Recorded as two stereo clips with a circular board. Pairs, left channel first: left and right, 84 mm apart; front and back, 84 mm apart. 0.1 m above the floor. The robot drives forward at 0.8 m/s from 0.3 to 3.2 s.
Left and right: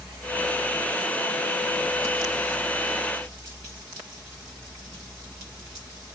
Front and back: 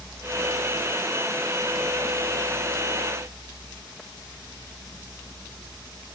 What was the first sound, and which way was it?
Only background noise.